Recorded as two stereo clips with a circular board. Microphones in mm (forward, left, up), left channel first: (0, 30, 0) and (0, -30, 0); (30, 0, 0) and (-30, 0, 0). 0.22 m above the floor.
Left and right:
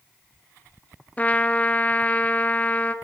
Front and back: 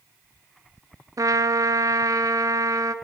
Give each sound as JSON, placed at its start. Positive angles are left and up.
{"t": 1.2, "sound": "a trumpet", "azimuth_deg": 155, "distance_m": 1.0}